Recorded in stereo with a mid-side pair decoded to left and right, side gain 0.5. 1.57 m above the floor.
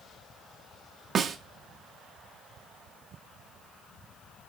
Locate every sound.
1.1 s a snare drum: 45° right, 0.5 m